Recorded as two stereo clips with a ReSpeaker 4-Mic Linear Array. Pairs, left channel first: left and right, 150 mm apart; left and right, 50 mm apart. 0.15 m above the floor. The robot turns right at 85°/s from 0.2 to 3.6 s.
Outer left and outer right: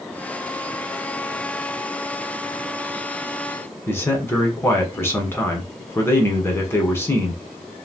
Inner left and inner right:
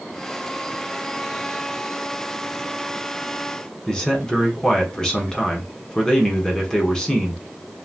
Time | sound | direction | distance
3.9 | a man speaking | 15° left (ahead or behind) | 1.1 m